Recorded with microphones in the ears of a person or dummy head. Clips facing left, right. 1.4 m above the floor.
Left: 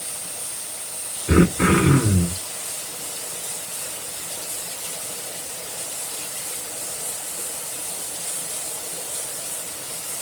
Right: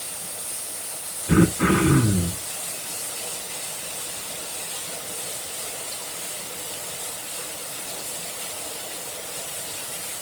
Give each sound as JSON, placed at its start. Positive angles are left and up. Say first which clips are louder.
{"t": 1.3, "sound": "throat clearing", "louder": "left 1 dB", "side_deg": 35, "distance_m": 1.3}